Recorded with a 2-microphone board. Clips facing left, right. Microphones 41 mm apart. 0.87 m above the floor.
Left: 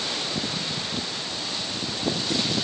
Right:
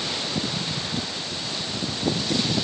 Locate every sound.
Only background noise.